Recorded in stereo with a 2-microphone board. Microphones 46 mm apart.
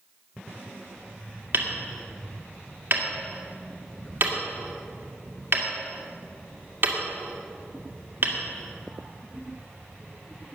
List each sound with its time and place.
1.5 s hammering: 50° right (ahead or behind), 2 m